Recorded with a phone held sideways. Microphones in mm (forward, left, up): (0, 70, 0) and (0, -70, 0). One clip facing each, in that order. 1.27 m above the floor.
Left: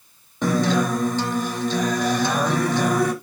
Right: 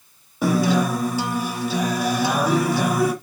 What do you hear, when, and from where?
0.4 s a guitar: 10° right (ahead or behind), 1.2 m